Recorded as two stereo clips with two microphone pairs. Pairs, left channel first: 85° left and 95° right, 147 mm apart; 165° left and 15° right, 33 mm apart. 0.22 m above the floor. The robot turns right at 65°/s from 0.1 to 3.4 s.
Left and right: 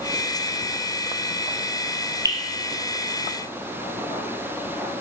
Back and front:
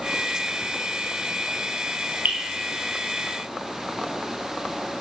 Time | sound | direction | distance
2.2 | dripping | 25° right | 3 m